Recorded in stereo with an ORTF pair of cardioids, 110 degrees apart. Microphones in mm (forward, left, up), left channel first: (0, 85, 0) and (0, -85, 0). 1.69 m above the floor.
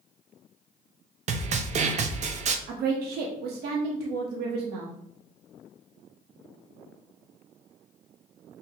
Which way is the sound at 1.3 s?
40° right.